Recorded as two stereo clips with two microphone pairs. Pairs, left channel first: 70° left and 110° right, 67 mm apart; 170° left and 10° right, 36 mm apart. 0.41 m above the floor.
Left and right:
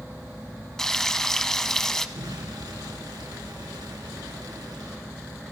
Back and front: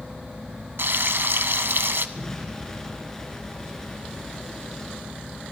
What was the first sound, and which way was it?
Frying, 15° right.